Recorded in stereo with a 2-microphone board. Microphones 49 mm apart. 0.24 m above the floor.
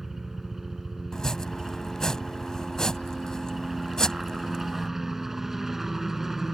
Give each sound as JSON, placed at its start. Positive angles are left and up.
{"t": 0.0, "sound": "a helicopter", "side_deg": -5}
{"t": 1.1, "sound": "chopping", "side_deg": 15}